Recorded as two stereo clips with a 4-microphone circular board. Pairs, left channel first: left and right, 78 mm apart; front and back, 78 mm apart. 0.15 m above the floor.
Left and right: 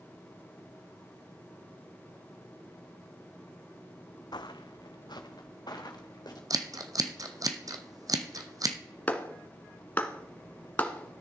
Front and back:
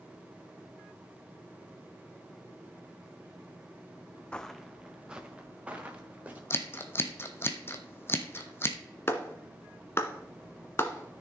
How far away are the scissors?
About 1.2 m.